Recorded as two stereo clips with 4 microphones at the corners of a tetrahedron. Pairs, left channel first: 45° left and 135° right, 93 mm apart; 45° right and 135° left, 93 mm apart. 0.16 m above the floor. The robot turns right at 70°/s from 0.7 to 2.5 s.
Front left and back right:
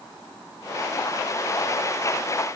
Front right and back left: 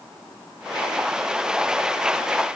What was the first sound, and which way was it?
Only background noise.